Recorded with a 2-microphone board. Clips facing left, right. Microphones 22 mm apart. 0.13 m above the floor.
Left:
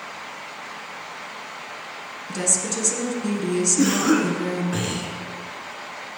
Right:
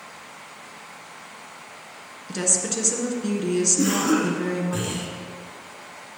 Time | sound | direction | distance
2.3 | a woman speaking | 10° right (ahead or behind) | 1.4 m
3.8 | a cough | 25° left (ahead or behind) | 2 m